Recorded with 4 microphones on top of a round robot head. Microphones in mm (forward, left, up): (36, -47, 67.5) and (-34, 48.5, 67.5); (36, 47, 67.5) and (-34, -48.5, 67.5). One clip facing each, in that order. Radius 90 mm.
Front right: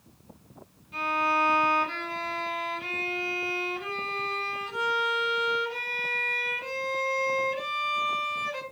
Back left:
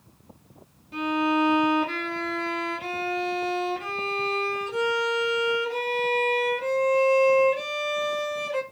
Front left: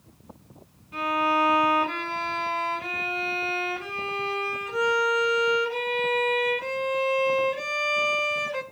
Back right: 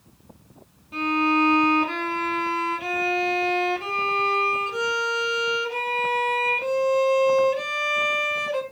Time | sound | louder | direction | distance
0.9 | a violin | back left 4 dB, back right 2 dB | 170° left | 1.8 m